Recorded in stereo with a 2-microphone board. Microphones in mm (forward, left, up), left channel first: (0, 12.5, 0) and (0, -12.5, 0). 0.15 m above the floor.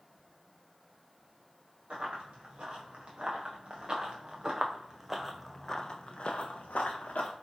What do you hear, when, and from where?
1.9 s running footsteps: 50° right (ahead or behind), 2 m; by 7.3 s 85° left, 0.9 m